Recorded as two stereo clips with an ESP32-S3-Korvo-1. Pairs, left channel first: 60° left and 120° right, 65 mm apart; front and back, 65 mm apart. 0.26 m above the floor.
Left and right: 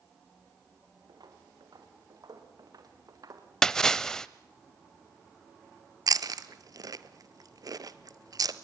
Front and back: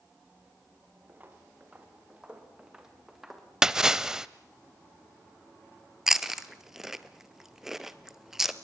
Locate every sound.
1.1 s footsteps: 115° right, 5 m; by 3.5 s 90° right, 4.5 m
3.6 s a splash: 120° left, 0.8 m
6.1 s chewing: 95° right, 1.1 m